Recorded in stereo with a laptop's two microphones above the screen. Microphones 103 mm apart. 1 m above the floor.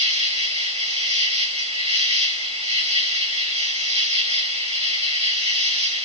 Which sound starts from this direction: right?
An insect, at 0.0 s.